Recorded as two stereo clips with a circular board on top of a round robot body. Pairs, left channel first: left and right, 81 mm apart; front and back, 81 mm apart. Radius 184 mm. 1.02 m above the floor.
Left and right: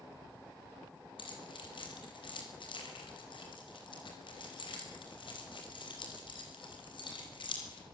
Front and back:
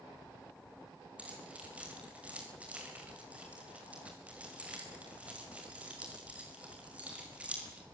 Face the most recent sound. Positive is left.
turn(degrees=105)